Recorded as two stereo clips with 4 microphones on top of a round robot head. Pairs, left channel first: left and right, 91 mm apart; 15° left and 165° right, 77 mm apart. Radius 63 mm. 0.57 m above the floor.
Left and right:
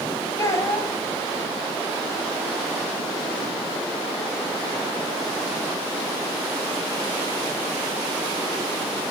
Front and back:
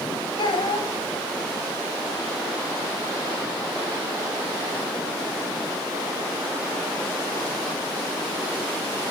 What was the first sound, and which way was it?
A child speaking, 35° left.